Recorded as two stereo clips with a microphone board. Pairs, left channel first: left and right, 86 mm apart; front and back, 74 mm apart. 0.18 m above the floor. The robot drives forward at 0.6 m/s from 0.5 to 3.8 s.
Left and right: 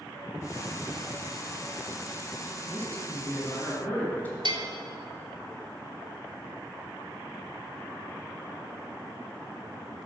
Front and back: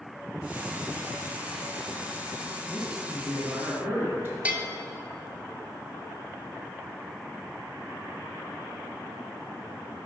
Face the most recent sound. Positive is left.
turn(degrees=-110)